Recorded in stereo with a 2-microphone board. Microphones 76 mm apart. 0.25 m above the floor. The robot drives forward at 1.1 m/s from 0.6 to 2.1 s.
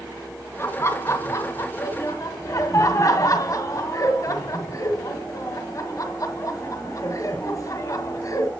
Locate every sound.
0.6 s laughter: 35° left (ahead or behind), 2.5 m; by 8.5 s 45° left (ahead or behind), 1.8 m